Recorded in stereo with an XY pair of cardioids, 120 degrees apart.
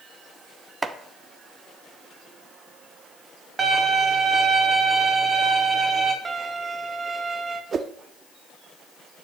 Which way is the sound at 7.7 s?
40° right.